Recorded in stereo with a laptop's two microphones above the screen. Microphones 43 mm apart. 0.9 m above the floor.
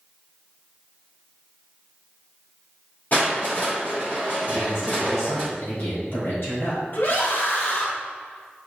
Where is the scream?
55° left (ahead or behind), 1.5 m.